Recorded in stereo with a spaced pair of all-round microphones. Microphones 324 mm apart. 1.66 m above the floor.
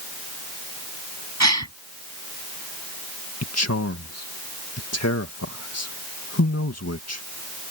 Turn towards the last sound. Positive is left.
turn(degrees=50)  # may be behind; listen again after turning